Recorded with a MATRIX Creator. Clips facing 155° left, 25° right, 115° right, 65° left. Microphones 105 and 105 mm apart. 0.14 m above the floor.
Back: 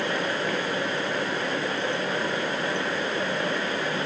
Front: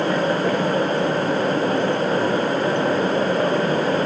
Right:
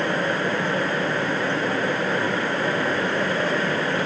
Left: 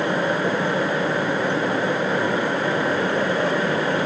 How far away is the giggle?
No giggle in this recording.